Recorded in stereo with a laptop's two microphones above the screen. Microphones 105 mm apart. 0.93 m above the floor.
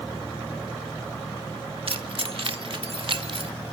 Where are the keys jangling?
60° right (ahead or behind), 1.2 m.